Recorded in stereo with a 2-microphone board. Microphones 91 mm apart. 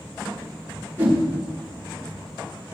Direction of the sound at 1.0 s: 25° right (ahead or behind).